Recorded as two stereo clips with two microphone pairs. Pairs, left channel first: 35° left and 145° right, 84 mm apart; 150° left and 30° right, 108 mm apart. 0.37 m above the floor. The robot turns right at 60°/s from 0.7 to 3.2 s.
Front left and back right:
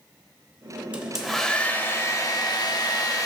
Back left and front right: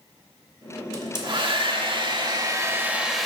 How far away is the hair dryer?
About 0.7 m.